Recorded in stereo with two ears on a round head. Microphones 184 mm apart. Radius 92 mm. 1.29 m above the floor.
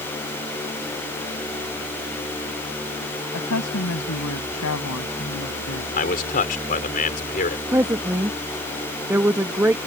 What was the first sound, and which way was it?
A woman speaking, 90° left.